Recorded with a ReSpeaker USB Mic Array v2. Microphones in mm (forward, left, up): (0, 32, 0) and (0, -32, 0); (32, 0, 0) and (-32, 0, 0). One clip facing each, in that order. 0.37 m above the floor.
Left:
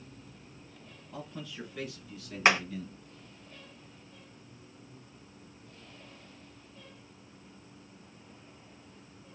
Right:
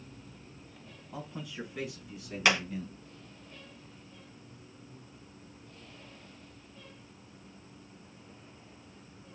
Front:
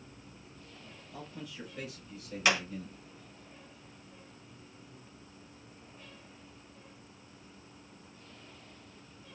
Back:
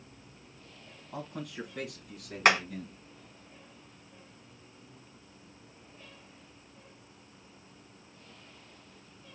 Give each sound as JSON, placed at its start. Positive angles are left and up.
{"t": 1.1, "sound": "a man speaking", "azimuth_deg": -160, "distance_m": 3.5}
{"t": 2.5, "sound": "hammering", "azimuth_deg": 145, "distance_m": 3.5}